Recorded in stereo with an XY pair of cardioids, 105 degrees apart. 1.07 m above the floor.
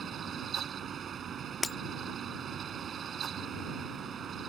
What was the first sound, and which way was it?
A fan, 50° right.